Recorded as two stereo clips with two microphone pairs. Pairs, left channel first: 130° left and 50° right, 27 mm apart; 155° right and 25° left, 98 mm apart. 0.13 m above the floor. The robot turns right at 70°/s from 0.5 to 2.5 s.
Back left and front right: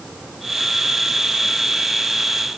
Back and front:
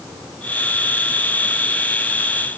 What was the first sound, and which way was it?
Only background noise.